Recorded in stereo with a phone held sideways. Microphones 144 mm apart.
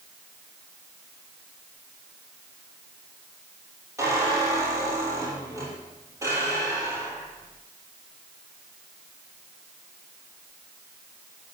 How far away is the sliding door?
I don't hear a sliding door.